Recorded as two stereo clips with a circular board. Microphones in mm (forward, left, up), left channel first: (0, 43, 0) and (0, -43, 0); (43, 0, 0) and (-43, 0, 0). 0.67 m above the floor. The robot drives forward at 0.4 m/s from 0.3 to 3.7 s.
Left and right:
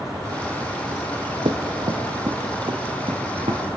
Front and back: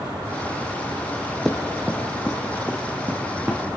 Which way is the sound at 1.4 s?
85° right.